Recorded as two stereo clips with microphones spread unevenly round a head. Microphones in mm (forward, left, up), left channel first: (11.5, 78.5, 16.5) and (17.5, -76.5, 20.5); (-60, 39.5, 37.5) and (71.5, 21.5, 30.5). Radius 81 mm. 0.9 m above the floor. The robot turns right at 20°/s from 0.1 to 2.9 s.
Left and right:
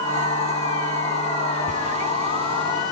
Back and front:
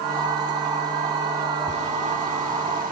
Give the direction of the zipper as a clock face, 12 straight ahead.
2 o'clock.